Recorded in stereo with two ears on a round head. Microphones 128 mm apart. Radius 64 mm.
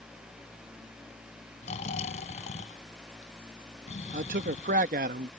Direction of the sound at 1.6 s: 50° left (ahead or behind).